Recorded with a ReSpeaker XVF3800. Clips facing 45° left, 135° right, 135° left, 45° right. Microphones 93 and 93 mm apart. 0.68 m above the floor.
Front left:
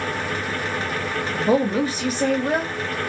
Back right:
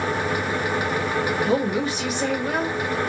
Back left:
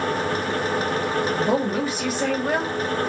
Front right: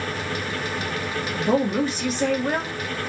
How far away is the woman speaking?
About 1.2 m.